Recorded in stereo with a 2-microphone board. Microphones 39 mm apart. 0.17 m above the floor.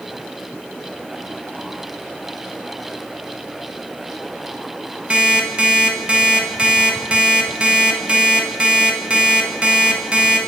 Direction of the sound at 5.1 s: 30° right (ahead or behind).